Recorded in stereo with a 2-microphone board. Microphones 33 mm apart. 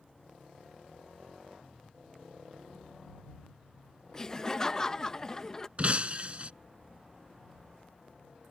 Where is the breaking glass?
40° right (ahead or behind).